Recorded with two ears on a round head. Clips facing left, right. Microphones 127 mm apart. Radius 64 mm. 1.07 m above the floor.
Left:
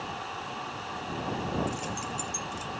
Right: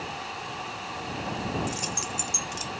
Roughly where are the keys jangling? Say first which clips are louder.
Right 1 dB; right.